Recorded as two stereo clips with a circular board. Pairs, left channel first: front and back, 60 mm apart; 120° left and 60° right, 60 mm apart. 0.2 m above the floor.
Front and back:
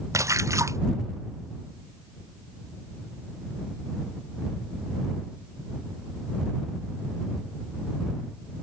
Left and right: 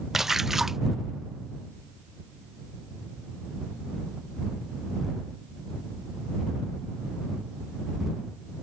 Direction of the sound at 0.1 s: 145° right.